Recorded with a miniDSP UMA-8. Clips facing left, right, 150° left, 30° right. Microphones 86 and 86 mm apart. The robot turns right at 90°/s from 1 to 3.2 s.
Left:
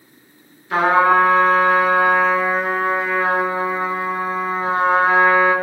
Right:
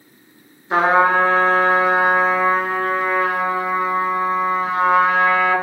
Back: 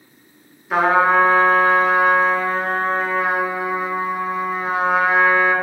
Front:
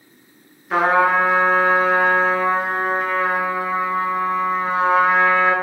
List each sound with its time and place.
0.7 s a trumpet: 125° right, 0.6 m; by 5.5 s 75° left, 0.6 m